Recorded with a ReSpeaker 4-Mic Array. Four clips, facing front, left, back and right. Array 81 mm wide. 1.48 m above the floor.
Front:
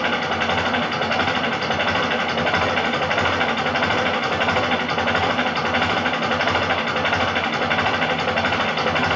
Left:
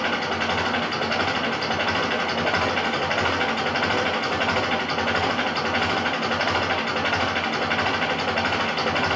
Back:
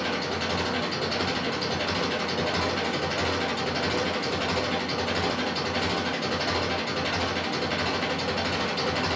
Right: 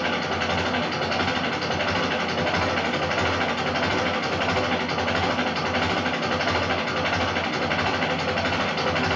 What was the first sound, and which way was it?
An engine running, 5° left.